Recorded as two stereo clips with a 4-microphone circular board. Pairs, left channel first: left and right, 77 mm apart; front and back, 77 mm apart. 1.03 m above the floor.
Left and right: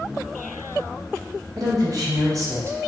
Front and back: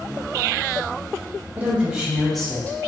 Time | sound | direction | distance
1.6 | a woman speaking | 115° right | 1.5 m